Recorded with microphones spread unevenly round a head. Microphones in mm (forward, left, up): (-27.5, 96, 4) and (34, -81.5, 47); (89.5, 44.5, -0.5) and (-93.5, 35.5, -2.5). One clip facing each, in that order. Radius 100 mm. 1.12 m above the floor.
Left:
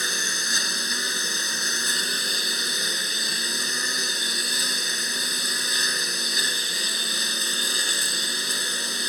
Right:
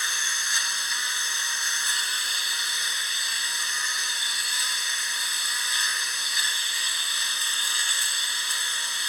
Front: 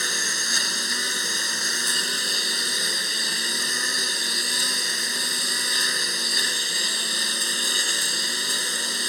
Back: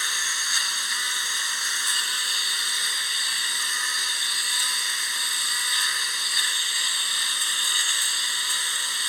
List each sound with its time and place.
0.0 s a lawn mower: 50° left